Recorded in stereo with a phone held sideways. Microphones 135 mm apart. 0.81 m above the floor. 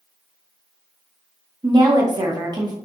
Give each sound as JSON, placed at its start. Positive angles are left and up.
{"t": 1.6, "sound": "a woman speaking", "side_deg": -30, "distance_m": 0.7}